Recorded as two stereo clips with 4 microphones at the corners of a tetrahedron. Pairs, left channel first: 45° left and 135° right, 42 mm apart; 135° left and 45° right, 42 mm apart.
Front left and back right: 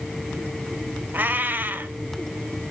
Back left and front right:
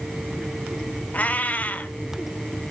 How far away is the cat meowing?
About 1.0 m.